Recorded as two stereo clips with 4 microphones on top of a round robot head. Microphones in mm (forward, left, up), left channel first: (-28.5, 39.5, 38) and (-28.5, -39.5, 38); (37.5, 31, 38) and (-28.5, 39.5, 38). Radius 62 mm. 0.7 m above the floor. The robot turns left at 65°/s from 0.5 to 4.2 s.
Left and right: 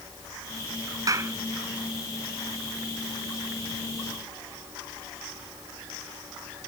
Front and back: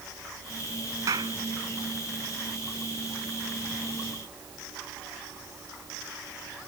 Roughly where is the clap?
Behind right.